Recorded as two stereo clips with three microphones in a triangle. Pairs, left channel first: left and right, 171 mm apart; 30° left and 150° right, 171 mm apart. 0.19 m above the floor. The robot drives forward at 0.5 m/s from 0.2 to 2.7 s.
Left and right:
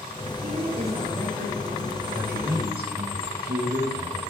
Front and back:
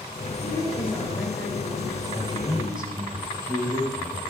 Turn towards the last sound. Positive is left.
turn(degrees=-90)